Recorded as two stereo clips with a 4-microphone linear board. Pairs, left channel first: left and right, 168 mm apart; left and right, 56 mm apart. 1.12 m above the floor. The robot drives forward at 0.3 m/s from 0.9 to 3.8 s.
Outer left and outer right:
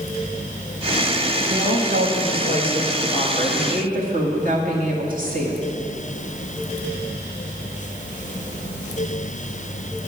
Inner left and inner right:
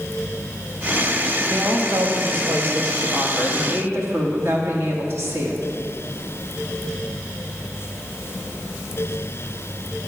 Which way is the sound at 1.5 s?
75° right (ahead or behind).